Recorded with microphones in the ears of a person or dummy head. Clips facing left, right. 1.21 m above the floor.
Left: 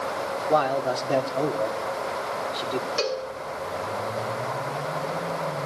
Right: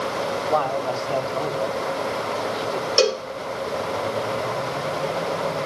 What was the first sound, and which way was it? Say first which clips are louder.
A man speaking: left 2 dB; 25° left (ahead or behind).